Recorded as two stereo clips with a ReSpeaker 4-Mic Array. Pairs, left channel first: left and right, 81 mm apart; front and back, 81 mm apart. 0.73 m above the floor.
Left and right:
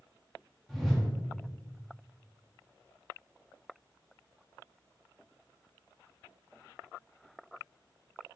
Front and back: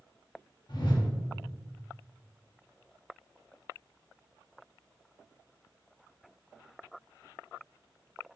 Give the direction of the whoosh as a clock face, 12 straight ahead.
12 o'clock.